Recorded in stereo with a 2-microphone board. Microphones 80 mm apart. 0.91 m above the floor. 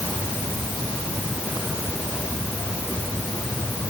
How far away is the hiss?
I don't hear a hiss.